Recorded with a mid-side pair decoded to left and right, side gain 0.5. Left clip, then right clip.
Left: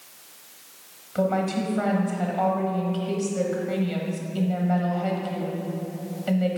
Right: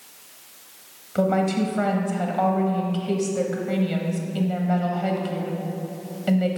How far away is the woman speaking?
About 1.1 m.